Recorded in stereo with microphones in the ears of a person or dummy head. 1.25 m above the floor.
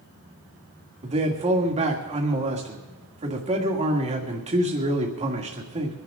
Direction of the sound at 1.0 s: 30° right (ahead or behind).